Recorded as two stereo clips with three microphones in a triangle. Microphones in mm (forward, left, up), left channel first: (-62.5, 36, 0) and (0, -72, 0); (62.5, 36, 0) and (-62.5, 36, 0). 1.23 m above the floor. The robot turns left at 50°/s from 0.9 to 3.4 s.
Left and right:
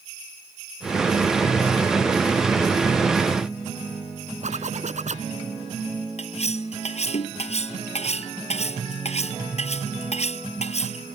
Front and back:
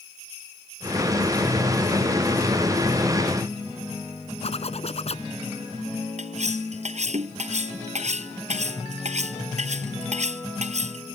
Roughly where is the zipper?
Ahead right.